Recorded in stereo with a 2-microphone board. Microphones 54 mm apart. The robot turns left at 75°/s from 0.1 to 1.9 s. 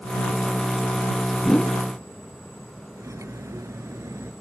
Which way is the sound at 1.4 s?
5° left (ahead or behind).